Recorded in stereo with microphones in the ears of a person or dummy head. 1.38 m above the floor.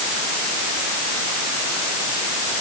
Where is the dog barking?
I don't hear a dog barking.